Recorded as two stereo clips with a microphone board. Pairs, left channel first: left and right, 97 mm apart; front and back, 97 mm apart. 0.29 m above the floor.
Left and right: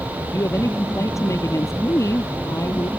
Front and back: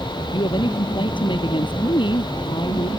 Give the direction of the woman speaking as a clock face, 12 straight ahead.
11 o'clock.